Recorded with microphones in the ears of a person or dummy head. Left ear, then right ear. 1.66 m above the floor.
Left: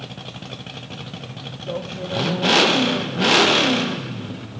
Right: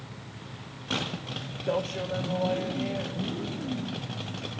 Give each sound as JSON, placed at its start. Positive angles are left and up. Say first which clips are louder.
{"t": 1.7, "sound": "a man speaking", "louder": "left 1 dB", "side_deg": -65, "distance_m": 0.7}